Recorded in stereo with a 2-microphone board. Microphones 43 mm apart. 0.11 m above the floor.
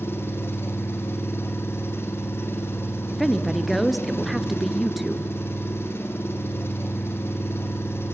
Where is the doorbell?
No doorbell in this recording.